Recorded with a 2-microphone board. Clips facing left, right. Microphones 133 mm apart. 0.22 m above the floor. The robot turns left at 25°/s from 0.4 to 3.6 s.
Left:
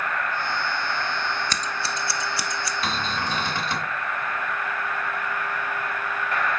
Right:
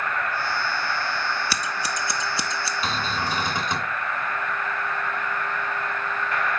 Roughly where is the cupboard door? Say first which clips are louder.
Right 1 dB; centre.